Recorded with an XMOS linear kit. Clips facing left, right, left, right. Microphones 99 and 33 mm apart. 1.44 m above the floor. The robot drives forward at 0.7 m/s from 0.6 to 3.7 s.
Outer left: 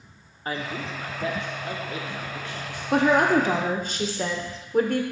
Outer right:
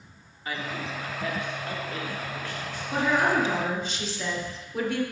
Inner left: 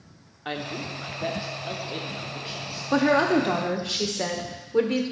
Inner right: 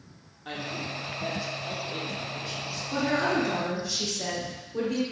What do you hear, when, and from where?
0.5 s a man speaking: 40° left (ahead or behind), 1.1 m; by 2.8 s 15° left (ahead or behind), 2.5 m
2.9 s a woman speaking: 75° left (ahead or behind), 0.9 m; by 5.0 s 45° left (ahead or behind), 1.1 m